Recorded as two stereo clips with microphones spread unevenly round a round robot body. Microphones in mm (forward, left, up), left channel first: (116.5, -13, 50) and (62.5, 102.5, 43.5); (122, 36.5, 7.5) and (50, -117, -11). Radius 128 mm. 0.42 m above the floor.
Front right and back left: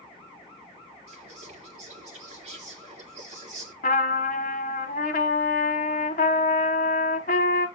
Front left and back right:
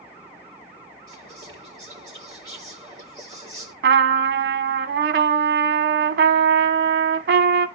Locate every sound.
1.1 s whispering: 170° left, 7 m
3.8 s a trumpet: 105° right, 1.2 m